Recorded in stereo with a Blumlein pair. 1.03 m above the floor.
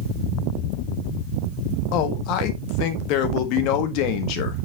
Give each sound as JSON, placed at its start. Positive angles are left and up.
{"t": 1.9, "sound": "a man speaking", "azimuth_deg": 40, "distance_m": 1.4}